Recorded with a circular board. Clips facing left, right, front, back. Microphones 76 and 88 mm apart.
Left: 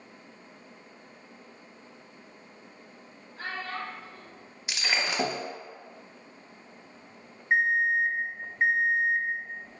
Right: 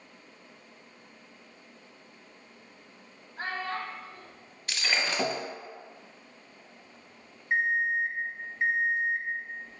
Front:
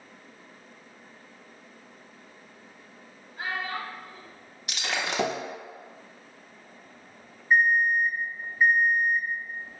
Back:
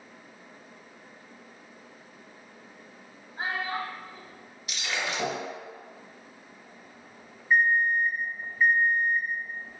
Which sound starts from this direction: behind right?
A child speaking, at 3.4 s.